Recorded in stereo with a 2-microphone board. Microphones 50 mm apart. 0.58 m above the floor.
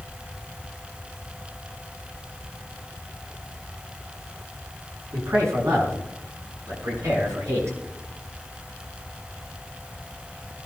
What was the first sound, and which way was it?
A man speaking, 80° right.